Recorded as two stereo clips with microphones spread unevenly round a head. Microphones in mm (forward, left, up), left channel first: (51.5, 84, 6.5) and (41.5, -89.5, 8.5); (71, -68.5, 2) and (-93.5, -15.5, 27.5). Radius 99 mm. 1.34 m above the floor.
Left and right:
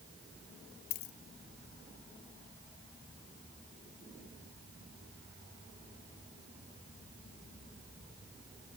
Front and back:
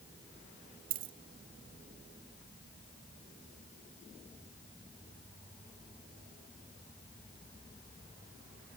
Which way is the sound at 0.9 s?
135° left.